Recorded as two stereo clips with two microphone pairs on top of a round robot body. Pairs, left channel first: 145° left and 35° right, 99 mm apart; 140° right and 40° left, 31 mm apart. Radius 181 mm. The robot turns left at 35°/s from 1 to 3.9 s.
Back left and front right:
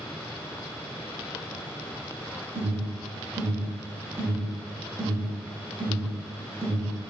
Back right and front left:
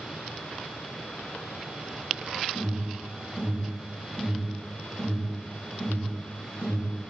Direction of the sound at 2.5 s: 40° right.